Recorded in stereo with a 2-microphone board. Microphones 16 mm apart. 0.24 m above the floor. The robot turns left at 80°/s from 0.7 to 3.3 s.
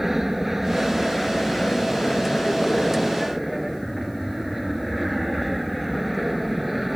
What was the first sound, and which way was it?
An aircraft, 155° right.